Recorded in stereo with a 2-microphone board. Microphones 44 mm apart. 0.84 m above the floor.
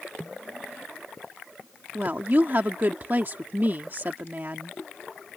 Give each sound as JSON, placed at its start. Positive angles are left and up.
{"t": 1.9, "sound": "a woman speaking", "side_deg": -45}